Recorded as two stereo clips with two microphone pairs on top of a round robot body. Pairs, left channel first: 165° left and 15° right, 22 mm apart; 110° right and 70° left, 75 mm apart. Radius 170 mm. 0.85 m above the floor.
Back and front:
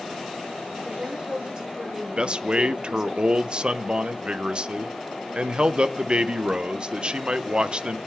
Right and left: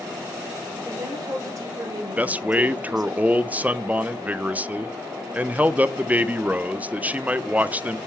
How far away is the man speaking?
About 0.6 m.